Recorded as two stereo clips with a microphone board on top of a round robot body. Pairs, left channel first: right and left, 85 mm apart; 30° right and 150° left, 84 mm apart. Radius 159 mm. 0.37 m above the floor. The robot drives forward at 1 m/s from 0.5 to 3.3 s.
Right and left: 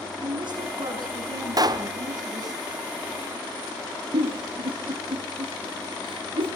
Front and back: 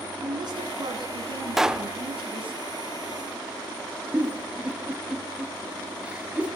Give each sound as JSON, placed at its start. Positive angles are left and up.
{"t": 0.2, "sound": "a woman speaking", "azimuth_deg": 115, "distance_m": 5.0}
{"t": 1.6, "sound": "a pop", "azimuth_deg": 65, "distance_m": 1.3}
{"t": 4.1, "sound": "a giggle", "azimuth_deg": 75, "distance_m": 4.0}